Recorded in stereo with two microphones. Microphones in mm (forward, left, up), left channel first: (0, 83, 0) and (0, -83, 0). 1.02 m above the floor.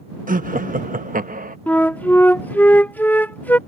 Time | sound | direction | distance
0.3 | laughter | 60° right (ahead or behind) | ?
1.7 | a flute | 10° left (ahead or behind) | ?